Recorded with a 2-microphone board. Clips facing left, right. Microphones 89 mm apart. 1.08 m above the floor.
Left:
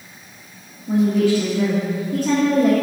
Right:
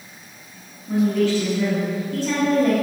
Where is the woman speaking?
40° left (ahead or behind), 1.8 m.